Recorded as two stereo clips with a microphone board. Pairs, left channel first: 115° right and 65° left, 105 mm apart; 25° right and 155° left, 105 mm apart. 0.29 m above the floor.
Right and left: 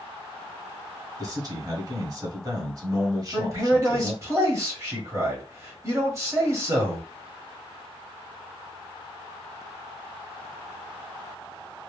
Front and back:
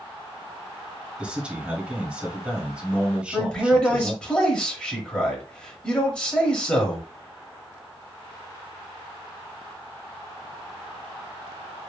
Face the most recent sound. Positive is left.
turn(degrees=45)